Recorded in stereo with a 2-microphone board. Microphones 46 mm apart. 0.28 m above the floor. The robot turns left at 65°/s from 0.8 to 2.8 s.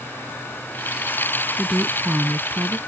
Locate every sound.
1.6 s a woman speaking: 10° right; by 2.8 s 85° right